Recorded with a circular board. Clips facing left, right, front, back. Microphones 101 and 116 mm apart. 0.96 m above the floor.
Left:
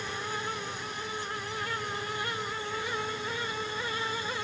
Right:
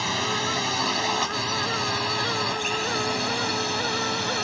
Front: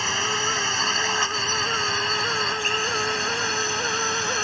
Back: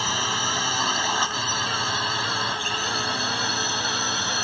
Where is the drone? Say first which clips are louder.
Right 8 dB, even; 105° right.